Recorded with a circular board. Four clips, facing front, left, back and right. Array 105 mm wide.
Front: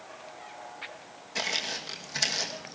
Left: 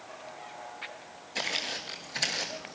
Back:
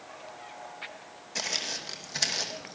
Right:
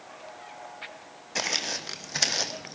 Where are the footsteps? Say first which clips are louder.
Right 3 dB, front 3 dB; 85° right, 2.5 m; by 2.8 s 95° right, 1.9 m.